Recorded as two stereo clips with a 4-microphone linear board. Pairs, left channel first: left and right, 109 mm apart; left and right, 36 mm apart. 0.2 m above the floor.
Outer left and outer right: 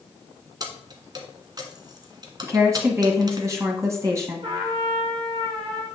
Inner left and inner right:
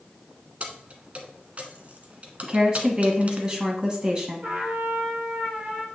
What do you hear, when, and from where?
0.6 s keys jangling: 40° right (ahead or behind), 1.2 m
2.4 s a woman speaking: 30° right (ahead or behind), 1.3 m
4.4 s a trumpet: 50° right (ahead or behind), 2.5 m